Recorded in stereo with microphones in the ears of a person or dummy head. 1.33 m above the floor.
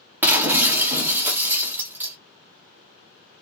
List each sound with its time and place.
0.2 s breaking glass: 15° right (ahead or behind), 0.8 m